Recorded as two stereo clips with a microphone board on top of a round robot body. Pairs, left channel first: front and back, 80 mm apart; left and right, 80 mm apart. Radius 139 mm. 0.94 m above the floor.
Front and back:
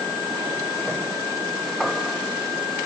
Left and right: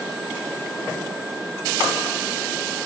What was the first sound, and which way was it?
Only background noise.